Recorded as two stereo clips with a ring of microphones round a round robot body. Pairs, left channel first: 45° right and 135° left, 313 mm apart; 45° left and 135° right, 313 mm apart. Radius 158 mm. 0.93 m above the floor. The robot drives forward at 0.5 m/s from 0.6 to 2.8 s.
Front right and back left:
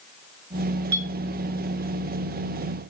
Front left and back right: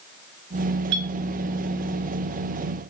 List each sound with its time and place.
0.9 s a clink: 145° right, 3.5 m